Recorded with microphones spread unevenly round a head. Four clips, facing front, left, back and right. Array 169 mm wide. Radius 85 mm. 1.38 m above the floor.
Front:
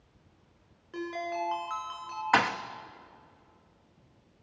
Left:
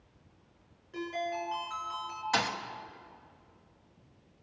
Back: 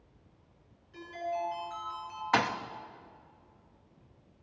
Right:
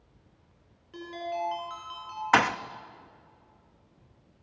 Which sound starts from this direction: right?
A thud, at 2.3 s.